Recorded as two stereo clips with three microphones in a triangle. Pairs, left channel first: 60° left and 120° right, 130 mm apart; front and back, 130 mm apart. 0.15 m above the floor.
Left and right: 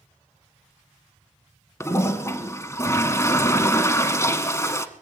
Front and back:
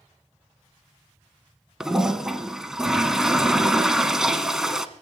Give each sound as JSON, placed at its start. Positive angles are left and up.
{"t": 1.8, "sound": "a toilet flushing", "azimuth_deg": 100, "distance_m": 0.9}